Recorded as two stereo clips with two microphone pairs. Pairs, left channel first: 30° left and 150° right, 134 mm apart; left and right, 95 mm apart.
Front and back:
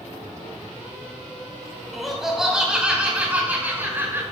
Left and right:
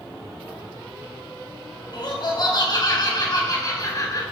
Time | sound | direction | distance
1.9 | laughter | 120° left | 3.5 m